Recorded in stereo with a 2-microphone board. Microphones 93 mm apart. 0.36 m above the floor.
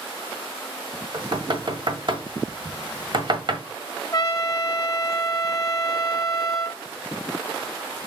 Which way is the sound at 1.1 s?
55° right (ahead or behind).